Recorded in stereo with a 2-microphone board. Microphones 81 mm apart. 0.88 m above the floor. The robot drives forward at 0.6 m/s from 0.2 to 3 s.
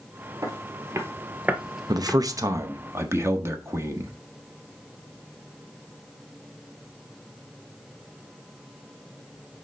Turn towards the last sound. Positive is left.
turn(degrees=-35)  # may be behind; listen again after turning